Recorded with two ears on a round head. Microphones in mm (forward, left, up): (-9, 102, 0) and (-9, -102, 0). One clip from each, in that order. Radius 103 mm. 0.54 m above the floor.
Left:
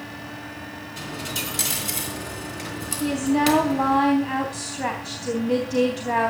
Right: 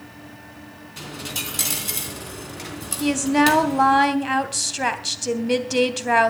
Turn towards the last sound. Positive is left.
turn(degrees=-65)  # may be behind; listen again after turning